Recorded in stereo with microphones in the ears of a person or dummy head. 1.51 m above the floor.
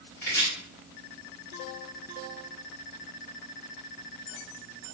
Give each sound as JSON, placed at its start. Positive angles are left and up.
{"t": 0.2, "sound": "chopping", "side_deg": 10, "distance_m": 1.7}